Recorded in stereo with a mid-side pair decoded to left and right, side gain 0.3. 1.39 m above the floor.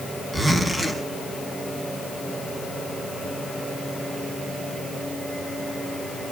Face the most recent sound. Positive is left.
turn(degrees=-35)